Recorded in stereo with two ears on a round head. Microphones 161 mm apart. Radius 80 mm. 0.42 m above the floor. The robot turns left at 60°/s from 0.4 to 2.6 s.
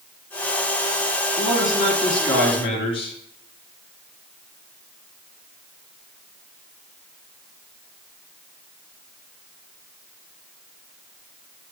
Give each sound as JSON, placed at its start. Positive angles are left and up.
{"t": 1.4, "sound": "a man speaking", "azimuth_deg": -140, "distance_m": 4.0}